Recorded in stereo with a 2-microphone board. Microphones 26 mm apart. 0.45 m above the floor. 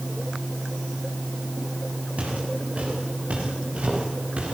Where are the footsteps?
60° right (ahead or behind), 9.5 m; by 4.5 s 50° right (ahead or behind), 10.5 m.